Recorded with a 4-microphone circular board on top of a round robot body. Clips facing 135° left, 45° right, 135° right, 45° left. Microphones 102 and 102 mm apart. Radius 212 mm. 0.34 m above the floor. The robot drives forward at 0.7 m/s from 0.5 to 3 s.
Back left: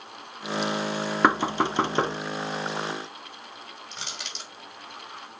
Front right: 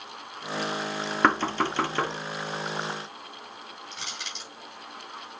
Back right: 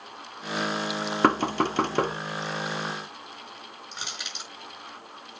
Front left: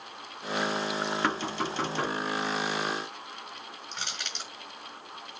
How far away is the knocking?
About 1.0 m.